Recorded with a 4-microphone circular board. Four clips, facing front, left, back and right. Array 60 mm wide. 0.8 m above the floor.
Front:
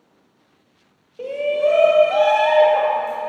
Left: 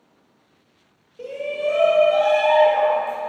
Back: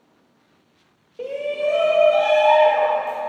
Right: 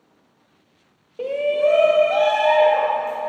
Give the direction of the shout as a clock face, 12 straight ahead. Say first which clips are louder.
Right 6 dB, front 4 dB; 3 o'clock.